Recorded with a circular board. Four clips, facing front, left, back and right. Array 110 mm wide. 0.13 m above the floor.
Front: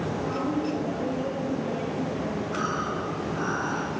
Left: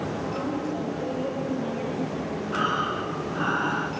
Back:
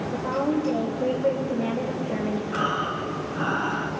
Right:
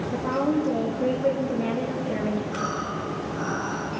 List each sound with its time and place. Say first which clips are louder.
0.1 s a woman speaking: right 5 dB, back 6 dB; 125° right, 2.5 m
2.5 s breathing: left 3 dB, back 2 dB; 120° left, 1.8 m